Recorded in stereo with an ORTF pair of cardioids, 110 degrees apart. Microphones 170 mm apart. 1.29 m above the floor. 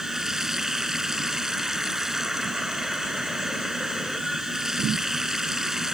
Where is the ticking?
No ticking in this recording.